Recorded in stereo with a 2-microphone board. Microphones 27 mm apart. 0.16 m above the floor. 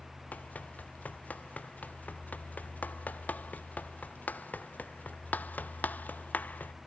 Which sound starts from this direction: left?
Running footsteps, at 0.3 s.